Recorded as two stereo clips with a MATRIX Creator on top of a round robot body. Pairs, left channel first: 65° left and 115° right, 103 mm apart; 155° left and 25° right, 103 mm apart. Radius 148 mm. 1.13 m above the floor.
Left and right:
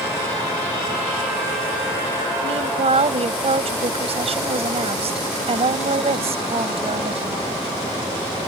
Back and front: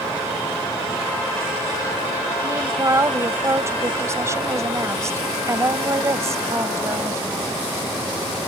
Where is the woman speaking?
85° right.